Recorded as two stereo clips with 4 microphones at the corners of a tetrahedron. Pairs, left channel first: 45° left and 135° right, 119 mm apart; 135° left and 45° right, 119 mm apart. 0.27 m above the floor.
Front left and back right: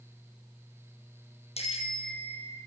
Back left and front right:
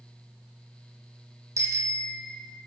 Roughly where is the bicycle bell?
Ahead.